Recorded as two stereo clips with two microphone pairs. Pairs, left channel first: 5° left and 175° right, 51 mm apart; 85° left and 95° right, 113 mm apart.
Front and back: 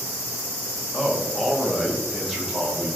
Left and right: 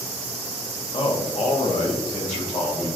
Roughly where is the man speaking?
Left.